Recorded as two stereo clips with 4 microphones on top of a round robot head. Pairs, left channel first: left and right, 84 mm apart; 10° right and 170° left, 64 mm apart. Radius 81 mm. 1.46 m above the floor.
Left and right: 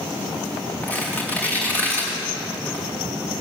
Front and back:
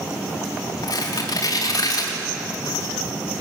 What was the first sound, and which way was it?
Tearing paper, 15° left.